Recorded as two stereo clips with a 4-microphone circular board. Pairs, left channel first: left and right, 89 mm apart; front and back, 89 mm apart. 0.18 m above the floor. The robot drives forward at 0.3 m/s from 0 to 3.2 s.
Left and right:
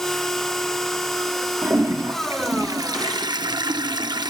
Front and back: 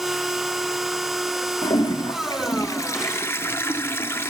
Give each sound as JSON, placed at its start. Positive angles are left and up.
{"t": 1.6, "sound": "a toilet flushing", "azimuth_deg": -35, "distance_m": 0.9}